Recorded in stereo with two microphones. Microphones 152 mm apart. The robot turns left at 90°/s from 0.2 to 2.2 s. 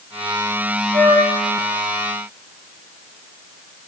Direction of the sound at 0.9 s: 65° right.